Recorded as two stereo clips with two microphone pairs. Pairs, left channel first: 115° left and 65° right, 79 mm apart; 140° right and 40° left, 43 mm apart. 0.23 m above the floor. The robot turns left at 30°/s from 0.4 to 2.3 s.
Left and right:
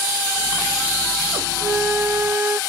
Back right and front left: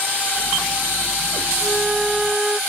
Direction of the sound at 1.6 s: 15° right.